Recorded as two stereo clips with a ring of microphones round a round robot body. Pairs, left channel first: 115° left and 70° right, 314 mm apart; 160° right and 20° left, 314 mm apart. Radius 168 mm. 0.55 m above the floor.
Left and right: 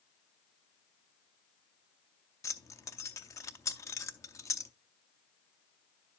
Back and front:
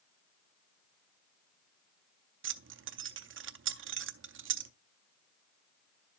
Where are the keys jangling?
35° left, 0.6 m.